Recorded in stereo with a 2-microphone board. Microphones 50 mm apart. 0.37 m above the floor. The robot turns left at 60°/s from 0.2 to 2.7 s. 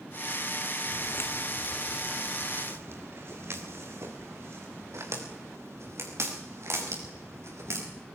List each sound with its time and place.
0.9 s footsteps: 75° left (ahead or behind), 1.3 m; by 7.8 s 70° right (ahead or behind), 8 m